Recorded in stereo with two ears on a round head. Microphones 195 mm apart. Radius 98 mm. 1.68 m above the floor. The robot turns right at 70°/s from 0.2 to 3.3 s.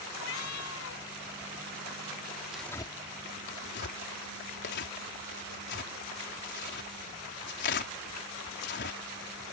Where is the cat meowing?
65° left; by 1.0 s 120° left.